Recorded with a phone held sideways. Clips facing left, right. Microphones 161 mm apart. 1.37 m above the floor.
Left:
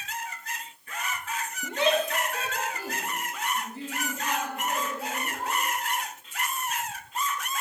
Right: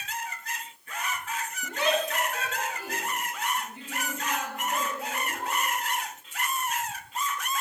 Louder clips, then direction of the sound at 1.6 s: Left 2 dB; 20° left (ahead or behind).